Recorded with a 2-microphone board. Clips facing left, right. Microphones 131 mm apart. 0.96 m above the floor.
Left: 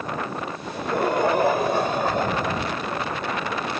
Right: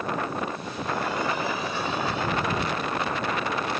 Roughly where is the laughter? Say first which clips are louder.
Left 5 dB; left.